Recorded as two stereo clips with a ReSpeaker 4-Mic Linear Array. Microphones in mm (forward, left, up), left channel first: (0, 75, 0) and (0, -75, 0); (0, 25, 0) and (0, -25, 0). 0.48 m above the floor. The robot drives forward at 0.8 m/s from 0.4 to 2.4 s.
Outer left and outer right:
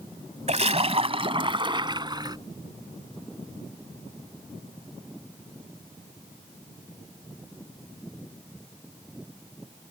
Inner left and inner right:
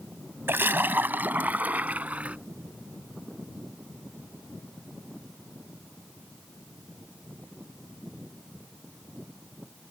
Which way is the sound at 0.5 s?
50° right (ahead or behind).